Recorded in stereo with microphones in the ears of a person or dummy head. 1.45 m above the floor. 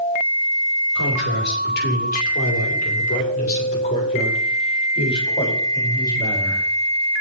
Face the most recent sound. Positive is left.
turn(degrees=20)  # may be behind; listen again after turning